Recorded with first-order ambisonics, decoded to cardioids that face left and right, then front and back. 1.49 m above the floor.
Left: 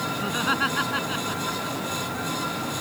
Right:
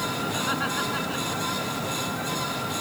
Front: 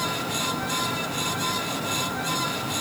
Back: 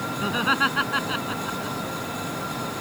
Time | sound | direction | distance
0.2 | laughter | 160° left | ?